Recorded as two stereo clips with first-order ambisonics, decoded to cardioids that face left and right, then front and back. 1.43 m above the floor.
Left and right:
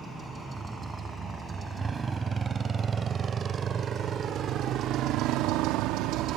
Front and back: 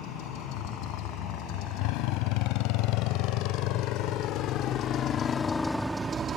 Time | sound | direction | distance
0.0 | a motorcycle | 10° right | ?